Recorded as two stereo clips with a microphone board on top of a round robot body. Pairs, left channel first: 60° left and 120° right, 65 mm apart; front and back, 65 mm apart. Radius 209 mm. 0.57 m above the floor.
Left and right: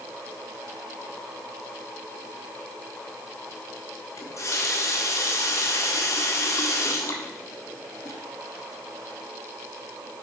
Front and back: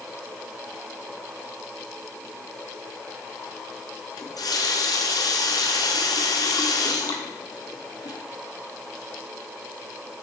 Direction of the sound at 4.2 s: 20° left.